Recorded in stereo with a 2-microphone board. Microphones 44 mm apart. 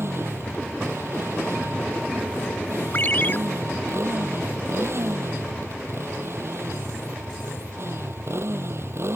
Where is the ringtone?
45° left (ahead or behind).